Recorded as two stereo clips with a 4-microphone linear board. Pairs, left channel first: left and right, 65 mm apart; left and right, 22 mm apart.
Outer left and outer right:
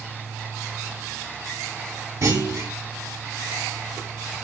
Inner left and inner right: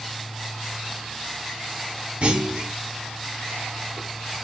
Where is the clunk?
50° right (ahead or behind), 0.8 m.